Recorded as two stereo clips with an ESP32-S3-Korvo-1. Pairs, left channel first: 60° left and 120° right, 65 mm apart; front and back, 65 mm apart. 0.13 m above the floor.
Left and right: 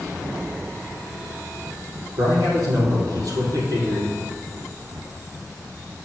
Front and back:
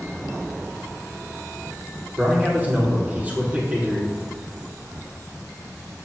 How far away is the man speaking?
About 4.5 m.